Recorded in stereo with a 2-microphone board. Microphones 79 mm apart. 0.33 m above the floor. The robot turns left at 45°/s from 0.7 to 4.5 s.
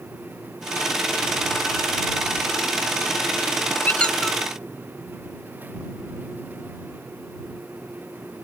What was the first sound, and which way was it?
A squeak, 20° left (ahead or behind).